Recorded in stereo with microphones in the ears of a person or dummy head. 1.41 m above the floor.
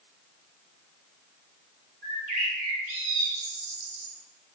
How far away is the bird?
About 6.5 m.